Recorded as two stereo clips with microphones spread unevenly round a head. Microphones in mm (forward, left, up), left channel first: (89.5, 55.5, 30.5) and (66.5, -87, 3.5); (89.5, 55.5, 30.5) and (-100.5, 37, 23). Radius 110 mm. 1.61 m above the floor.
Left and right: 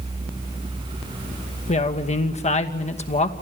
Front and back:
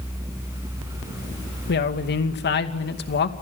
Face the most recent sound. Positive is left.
turn(degrees=40)